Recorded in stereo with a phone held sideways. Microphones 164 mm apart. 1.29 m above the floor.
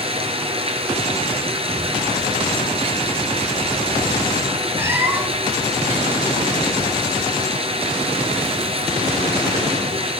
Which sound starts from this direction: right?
Running water, at 0.0 s.